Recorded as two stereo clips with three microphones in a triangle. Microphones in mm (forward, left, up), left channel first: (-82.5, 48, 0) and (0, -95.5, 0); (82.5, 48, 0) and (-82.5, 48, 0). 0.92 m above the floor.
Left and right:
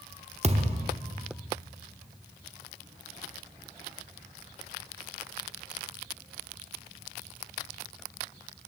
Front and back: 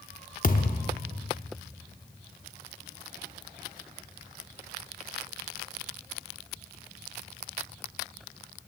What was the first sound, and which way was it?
A thud, 20° right.